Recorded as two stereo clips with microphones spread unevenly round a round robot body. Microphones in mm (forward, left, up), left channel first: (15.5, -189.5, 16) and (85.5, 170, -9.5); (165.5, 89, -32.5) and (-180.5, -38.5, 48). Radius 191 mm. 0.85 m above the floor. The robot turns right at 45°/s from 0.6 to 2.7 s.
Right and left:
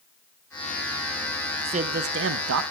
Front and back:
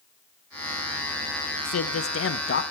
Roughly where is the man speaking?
Ahead.